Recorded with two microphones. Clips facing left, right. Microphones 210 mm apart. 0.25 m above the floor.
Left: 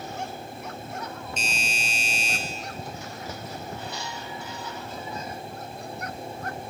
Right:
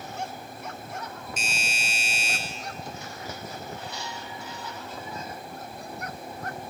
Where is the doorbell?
5° right (ahead or behind), 5.5 m.